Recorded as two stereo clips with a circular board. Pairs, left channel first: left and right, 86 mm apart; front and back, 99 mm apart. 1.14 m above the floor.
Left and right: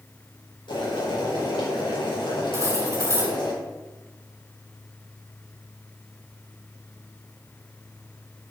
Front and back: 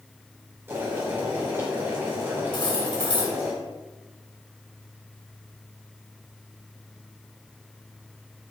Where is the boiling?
115° left, 5 m.